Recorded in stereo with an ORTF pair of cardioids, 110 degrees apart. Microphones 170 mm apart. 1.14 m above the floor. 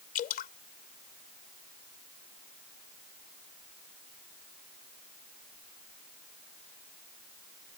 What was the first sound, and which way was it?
Dripping, 60° left.